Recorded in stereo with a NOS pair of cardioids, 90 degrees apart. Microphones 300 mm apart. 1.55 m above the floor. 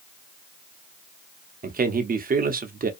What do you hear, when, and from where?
1.6 s a man speaking: 30° right, 0.7 m